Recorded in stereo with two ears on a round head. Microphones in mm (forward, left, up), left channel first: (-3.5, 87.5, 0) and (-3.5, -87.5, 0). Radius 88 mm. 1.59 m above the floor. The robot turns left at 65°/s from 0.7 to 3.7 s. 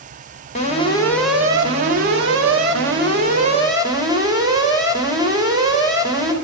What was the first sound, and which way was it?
An alarm, 35° left.